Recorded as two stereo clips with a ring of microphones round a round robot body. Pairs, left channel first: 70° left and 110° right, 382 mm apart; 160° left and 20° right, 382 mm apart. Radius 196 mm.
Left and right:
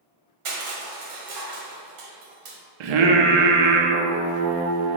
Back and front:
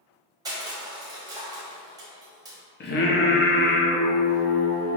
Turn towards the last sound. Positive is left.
turn(degrees=-135)